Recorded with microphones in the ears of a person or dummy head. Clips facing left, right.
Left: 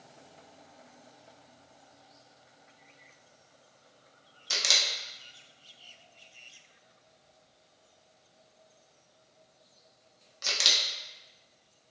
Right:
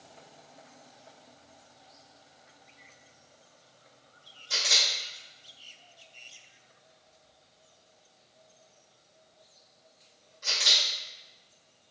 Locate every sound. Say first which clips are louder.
4.5 s a camera shutter: even; 75° left (ahead or behind), 0.6 m